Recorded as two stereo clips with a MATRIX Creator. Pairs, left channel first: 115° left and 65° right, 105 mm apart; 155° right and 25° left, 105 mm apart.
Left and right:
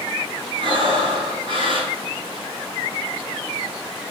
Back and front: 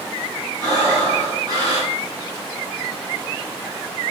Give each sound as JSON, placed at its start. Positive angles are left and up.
{"t": 0.6, "sound": "breathing", "azimuth_deg": -25, "distance_m": 6.5}